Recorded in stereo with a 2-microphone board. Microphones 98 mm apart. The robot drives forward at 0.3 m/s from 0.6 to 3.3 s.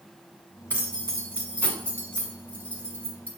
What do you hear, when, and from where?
0.7 s keys jangling: 15° left (ahead or behind), 1.1 m